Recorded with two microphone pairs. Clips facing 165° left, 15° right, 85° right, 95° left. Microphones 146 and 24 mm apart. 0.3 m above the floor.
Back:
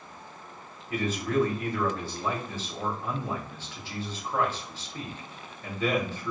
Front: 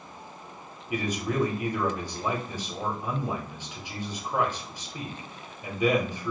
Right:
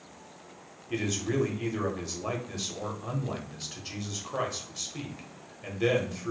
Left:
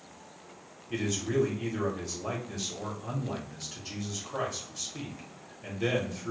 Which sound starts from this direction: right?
A man speaking, at 0.9 s.